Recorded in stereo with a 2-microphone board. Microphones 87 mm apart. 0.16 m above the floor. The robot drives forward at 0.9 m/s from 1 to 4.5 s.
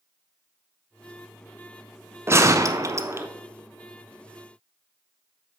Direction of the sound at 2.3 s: 30° right (ahead or behind).